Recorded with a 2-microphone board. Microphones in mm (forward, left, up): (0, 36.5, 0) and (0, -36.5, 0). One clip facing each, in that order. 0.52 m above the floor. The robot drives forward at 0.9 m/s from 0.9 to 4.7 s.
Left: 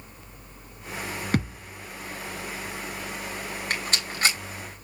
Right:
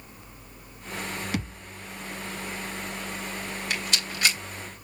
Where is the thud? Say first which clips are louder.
Left 5 dB; 45° left (ahead or behind), 2.5 m; by 1.7 s 50° left (ahead or behind), 2.5 m.